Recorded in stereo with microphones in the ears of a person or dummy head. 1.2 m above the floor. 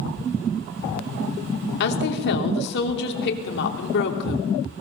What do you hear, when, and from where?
1.8 s a woman speaking: 60° left (ahead or behind), 3 m